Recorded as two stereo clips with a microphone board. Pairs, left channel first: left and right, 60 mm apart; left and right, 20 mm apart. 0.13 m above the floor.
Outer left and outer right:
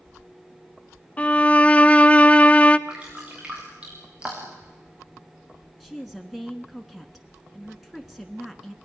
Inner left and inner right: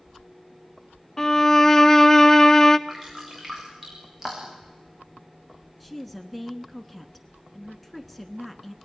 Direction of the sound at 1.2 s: 25° left (ahead or behind).